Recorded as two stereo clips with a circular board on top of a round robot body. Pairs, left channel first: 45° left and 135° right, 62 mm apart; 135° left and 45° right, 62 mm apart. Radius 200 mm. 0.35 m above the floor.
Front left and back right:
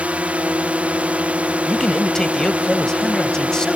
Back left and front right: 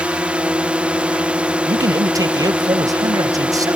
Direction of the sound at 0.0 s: 95° right.